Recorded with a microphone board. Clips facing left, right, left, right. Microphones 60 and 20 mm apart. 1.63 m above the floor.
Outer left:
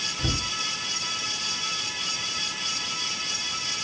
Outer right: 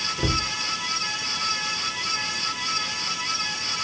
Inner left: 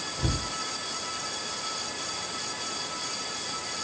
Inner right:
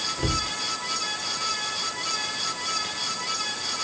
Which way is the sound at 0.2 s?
85° right.